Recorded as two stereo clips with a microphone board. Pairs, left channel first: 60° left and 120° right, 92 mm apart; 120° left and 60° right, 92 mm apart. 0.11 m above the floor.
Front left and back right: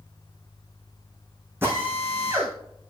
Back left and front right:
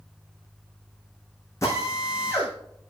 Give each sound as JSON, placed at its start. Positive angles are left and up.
{"t": 1.6, "sound": "a drill", "azimuth_deg": 175, "distance_m": 4.0}